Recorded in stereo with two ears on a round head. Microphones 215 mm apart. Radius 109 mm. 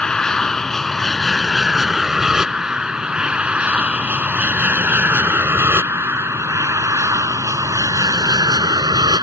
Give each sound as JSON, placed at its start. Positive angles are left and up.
{"t": 0.0, "sound": "an aircraft", "side_deg": 5}